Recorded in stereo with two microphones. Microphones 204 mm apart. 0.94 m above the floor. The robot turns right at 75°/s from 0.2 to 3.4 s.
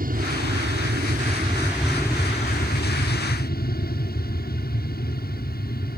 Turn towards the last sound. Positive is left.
turn(degrees=115)